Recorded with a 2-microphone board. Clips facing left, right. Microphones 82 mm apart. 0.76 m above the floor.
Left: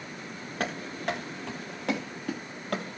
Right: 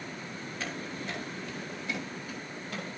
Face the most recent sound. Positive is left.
turn(degrees=55)  # may be behind; listen again after turning